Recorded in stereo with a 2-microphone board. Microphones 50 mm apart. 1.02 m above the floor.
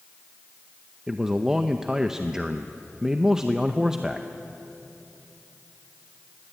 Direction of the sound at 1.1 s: 15° right (ahead or behind).